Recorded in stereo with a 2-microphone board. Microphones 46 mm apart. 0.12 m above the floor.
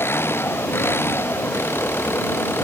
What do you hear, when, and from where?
0.0 s an engine running: 60° left (ahead or behind)